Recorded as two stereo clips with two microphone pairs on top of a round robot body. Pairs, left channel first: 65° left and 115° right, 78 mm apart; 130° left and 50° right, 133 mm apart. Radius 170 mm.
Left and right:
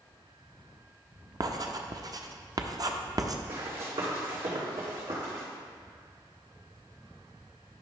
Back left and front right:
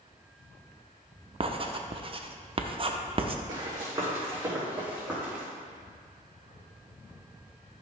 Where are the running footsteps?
105° right, 3 m; by 5.5 s 135° right, 4 m.